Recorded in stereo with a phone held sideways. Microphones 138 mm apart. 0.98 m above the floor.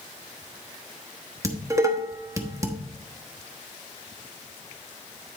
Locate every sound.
1.4 s dishes clattering: 20° right (ahead or behind), 1.1 m